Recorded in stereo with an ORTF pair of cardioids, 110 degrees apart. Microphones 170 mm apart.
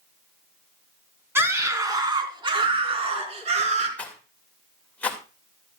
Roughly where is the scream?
Ahead.